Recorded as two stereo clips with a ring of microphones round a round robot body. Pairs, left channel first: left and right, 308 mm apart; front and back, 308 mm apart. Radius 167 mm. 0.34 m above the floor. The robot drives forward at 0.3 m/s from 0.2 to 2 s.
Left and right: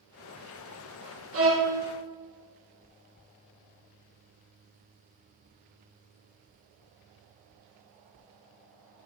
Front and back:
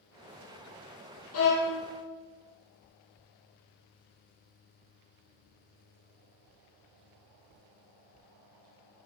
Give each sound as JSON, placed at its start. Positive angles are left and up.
{"t": 1.3, "sound": "a violin", "azimuth_deg": -45, "distance_m": 3.0}